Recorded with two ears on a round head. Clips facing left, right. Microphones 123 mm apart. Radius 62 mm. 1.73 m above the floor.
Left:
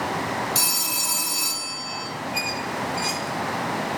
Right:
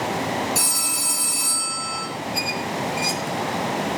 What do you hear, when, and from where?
0.6 s a phone ringing: 30° left (ahead or behind), 3 m
2.3 s a squeak: 15° right (ahead or behind), 1.1 m